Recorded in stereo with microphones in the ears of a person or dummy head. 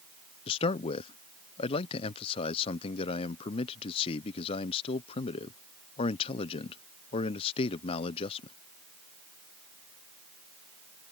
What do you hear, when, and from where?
0.5 s a man speaking: 35° left (ahead or behind)